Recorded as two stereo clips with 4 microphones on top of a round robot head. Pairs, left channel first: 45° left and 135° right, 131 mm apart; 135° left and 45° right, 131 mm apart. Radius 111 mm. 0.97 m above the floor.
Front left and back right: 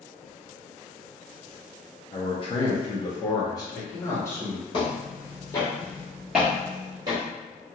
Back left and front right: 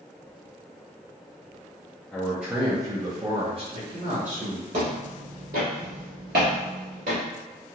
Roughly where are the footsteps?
Ahead.